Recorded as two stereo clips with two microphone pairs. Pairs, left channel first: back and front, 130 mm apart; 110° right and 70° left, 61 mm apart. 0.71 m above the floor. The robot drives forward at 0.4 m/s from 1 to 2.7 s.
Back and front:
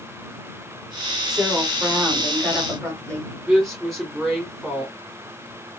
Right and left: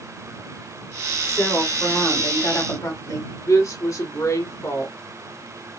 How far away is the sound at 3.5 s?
About 2.5 m.